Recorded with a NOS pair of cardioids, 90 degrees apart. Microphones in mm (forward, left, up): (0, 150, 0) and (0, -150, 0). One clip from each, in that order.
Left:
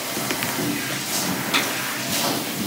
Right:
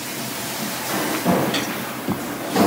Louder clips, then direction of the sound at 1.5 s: Left 2 dB; 35° left.